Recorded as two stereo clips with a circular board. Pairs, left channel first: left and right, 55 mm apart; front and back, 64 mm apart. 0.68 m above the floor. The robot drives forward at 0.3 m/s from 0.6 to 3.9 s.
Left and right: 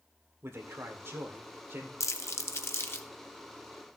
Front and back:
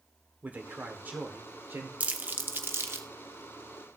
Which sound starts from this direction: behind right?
A man speaking, at 0.4 s.